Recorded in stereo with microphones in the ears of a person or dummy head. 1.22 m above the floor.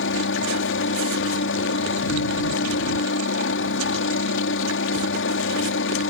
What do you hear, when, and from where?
0.0 s a helicopter: 65° left (ahead or behind)